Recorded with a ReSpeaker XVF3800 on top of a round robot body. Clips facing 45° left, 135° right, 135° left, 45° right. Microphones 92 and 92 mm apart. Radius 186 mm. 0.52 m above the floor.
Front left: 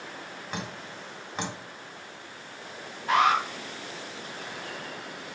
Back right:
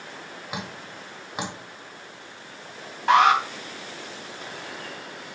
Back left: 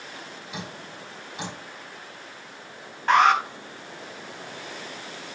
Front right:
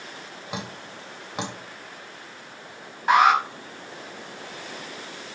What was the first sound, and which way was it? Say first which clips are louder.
Dripping: back right 1 dB, front right 4 dB; 55° right.